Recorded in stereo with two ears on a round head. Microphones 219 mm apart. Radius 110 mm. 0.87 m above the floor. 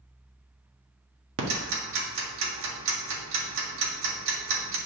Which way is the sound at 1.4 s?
55° right (ahead or behind).